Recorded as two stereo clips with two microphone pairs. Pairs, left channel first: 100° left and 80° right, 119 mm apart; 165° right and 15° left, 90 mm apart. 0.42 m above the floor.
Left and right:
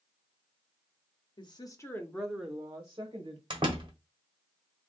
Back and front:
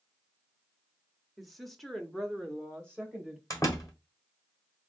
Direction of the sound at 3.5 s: 120° right.